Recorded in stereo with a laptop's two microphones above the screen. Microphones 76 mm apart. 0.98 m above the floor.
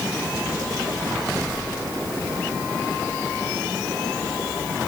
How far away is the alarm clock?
No alarm clock in this recording.